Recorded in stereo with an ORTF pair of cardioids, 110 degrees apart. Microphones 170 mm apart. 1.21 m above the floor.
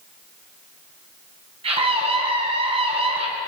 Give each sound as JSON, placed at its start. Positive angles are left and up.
{"t": 1.6, "sound": "a scream", "azimuth_deg": -35, "distance_m": 10.0}